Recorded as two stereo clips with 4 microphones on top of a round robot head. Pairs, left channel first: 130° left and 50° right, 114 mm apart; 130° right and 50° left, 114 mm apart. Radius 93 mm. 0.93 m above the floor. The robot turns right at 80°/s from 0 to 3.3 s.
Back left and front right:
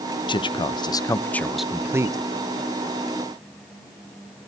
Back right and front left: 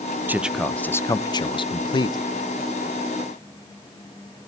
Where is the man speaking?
115° left, 0.9 m; by 2.2 s 95° right, 0.9 m.